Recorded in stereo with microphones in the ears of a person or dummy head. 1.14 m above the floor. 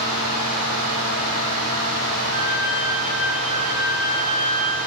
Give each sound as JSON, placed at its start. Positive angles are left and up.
{"t": 0.0, "sound": "a fan", "side_deg": 25, "distance_m": 1.0}
{"t": 2.3, "sound": "a violin", "side_deg": -60, "distance_m": 0.6}